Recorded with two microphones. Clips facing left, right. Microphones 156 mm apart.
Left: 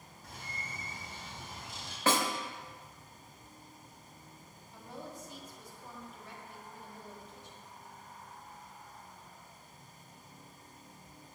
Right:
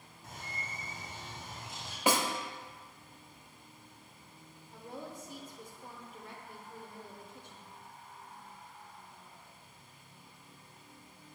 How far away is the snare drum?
About 0.8 m.